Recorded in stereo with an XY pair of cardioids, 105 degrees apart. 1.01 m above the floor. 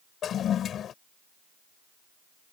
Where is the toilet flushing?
60° left.